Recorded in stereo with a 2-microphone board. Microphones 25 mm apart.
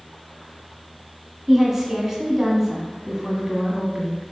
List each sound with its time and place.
1.5 s a woman speaking: 20° right (ahead or behind), 1.2 m